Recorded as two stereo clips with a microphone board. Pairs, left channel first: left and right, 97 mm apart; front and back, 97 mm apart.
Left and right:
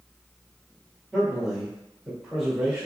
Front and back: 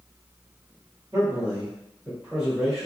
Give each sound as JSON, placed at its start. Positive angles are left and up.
{"t": 1.1, "sound": "a man speaking", "azimuth_deg": -175, "distance_m": 1.5}